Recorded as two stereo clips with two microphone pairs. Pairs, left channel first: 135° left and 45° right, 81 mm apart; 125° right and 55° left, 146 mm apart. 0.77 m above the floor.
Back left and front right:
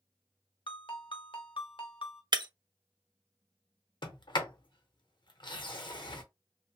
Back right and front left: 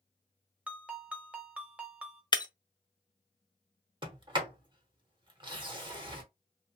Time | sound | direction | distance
0.7 | a ringtone | 135° left | 0.8 m
2.3 | breaking glass | 70° right | 0.5 m
4.0 | a sliding door | 110° left | 0.8 m